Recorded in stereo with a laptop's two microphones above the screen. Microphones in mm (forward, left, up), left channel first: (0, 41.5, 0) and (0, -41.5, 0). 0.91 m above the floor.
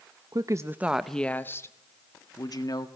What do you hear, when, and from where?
0.3 s a woman speaking: 50° right (ahead or behind), 0.6 m; by 2.9 s 55° left (ahead or behind), 1.4 m